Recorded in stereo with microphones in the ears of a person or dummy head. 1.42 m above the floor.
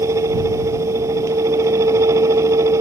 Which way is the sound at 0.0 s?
15° right (ahead or behind).